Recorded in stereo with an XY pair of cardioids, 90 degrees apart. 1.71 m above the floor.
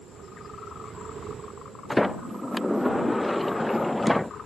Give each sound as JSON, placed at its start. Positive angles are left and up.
{"t": 1.9, "sound": "a sliding door", "azimuth_deg": 5}